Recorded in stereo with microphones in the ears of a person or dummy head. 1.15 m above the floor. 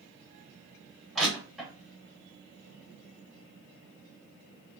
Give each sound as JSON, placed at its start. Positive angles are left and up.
{"t": 1.1, "sound": "crushing", "side_deg": 0, "distance_m": 1.9}